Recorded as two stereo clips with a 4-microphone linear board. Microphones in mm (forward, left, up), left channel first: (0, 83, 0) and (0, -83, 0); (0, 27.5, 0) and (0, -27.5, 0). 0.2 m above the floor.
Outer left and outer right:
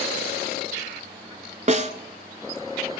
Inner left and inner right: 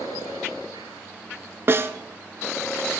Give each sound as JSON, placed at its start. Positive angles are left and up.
{"t": 1.7, "sound": "a snare drum", "side_deg": -45, "distance_m": 0.7}